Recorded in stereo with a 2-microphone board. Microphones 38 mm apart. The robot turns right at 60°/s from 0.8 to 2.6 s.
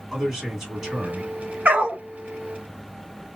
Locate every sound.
0.1 s a man speaking: 165° right, 2.0 m; by 1.6 s 120° right, 2.0 m
1.6 s a dog barking: 45° right (ahead or behind), 0.9 m; by 2.0 s 25° right (ahead or behind), 0.9 m